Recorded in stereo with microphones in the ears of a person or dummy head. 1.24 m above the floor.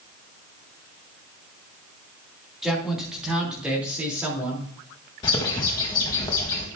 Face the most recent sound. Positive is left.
turn(degrees=20)  # may be behind; listen again after turning